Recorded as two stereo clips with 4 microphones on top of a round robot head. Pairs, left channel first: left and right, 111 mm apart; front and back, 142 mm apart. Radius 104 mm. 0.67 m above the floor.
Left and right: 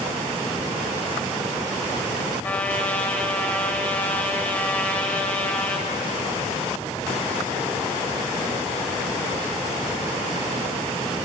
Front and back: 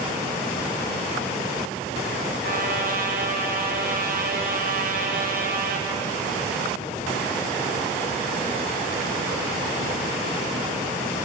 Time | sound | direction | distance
2.4 | a trumpet | 165° left | 3 m